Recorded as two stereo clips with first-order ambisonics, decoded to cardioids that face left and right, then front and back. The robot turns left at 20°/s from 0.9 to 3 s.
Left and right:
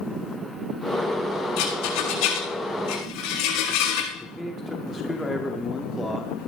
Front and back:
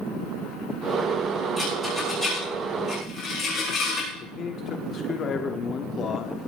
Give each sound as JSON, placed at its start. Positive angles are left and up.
{"t": 1.6, "sound": "a rattle", "azimuth_deg": 95, "distance_m": 8.0}
{"t": 4.2, "sound": "a man speaking", "azimuth_deg": 10, "distance_m": 1.1}